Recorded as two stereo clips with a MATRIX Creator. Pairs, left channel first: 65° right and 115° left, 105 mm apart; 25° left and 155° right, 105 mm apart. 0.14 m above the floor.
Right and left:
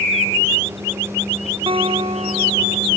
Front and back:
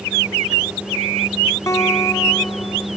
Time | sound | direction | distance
1.7 | a guitar | 85° left | ?